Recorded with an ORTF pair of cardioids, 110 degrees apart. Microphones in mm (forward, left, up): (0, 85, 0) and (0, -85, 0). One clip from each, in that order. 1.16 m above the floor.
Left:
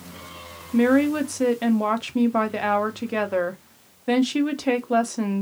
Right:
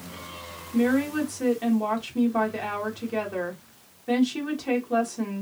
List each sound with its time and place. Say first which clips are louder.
0.7 s a woman speaking: left 5 dB; 40° left, 0.6 m